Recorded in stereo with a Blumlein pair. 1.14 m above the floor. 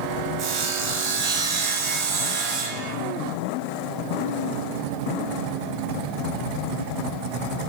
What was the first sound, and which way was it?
Sawing, 40° right.